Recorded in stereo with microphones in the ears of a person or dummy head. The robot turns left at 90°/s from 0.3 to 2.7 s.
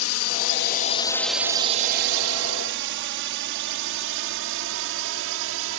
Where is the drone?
75° left (ahead or behind); by 5.8 s 70° right (ahead or behind).